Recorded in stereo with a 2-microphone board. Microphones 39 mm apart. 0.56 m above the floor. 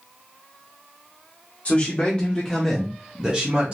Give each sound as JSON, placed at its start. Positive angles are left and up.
{"t": 1.6, "sound": "a man speaking", "side_deg": 40, "distance_m": 1.2}